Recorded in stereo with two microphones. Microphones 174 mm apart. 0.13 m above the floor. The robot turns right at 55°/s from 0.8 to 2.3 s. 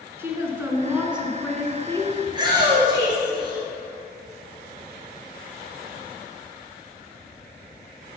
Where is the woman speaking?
15° right (ahead or behind), 1.4 m; by 2.2 s 20° left (ahead or behind), 1.4 m.